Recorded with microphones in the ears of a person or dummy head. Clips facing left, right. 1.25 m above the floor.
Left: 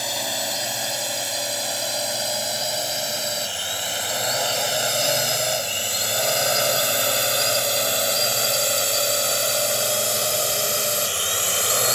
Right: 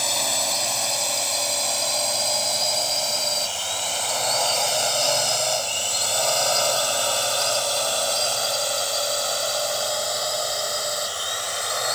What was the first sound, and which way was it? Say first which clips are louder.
A drone: even; 10° left (ahead or behind).